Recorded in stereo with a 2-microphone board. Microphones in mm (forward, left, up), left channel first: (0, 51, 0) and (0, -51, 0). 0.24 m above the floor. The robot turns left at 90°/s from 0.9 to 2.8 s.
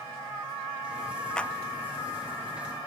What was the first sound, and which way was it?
A clap, 10° left (ahead or behind).